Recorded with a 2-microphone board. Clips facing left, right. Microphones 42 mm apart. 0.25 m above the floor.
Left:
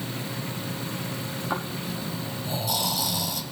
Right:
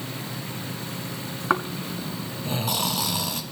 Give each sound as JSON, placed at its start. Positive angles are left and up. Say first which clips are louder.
{"t": 1.5, "sound": "snoring", "louder": "right 7 dB", "side_deg": -50, "distance_m": 1.5}